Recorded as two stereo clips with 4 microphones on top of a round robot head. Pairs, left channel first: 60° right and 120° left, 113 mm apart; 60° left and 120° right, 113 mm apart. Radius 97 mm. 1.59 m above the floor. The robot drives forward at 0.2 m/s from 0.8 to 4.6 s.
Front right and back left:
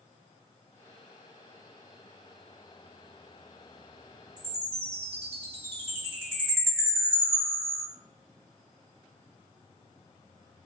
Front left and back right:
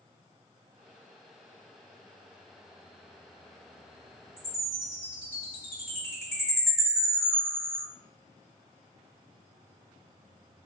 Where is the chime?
150° left, 1.1 m; by 7.8 s 155° left, 1.1 m.